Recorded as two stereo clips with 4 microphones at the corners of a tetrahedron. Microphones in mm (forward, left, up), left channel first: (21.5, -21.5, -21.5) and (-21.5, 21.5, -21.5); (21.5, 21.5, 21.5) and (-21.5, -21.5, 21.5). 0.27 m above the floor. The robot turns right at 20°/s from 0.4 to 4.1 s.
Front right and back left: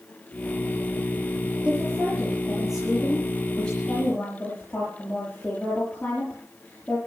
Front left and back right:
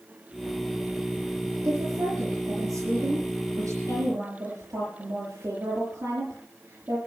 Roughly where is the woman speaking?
Behind right.